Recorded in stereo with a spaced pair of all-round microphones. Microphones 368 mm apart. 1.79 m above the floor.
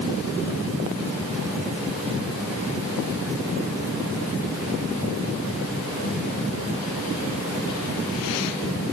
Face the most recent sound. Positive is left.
No sound to turn to.